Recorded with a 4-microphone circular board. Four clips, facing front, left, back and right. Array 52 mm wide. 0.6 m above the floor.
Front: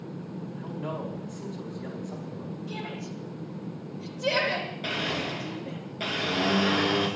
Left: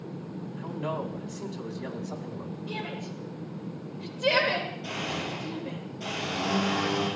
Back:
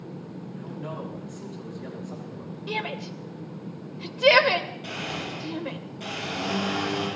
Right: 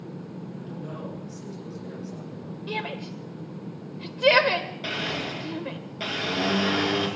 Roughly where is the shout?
Behind right.